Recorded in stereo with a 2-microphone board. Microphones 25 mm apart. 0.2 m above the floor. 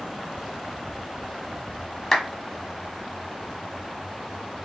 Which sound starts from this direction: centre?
A clap, at 2.1 s.